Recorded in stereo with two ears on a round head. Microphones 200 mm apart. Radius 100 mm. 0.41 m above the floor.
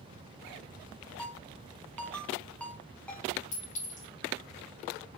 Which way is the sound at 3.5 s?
35° left (ahead or behind).